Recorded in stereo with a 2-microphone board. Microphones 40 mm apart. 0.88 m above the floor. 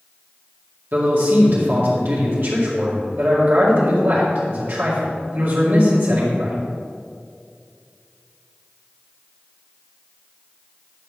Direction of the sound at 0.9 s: 60° right (ahead or behind).